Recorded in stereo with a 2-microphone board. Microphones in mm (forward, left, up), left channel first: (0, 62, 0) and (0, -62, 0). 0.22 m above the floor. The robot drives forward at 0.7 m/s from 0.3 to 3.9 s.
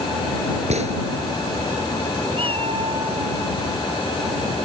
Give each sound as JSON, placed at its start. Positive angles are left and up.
{"t": 0.7, "sound": "a gunshot", "side_deg": -65}
{"t": 2.3, "sound": "a cat meowing", "side_deg": -50}